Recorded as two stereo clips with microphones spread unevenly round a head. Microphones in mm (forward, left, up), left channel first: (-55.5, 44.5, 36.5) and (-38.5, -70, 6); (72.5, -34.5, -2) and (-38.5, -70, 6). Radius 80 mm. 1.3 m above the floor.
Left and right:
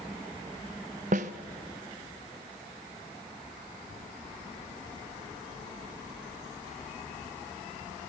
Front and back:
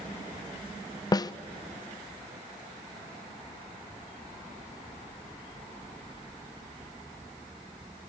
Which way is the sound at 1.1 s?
40° right.